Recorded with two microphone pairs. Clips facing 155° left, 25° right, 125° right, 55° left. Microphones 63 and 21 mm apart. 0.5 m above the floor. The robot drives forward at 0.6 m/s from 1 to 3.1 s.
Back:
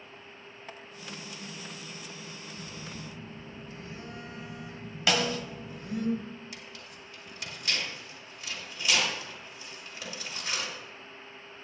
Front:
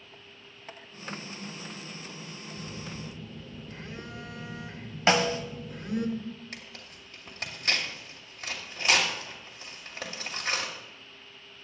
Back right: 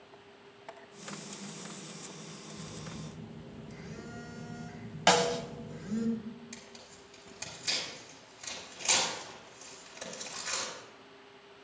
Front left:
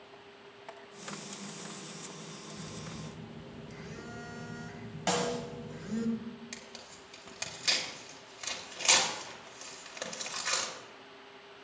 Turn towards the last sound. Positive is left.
turn(degrees=10)